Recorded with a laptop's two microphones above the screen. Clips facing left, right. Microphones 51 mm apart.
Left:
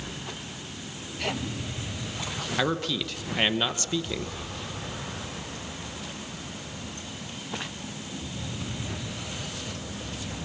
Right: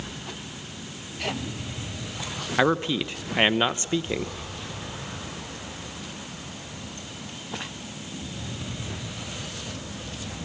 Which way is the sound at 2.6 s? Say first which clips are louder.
Right 6 dB; 25° right (ahead or behind).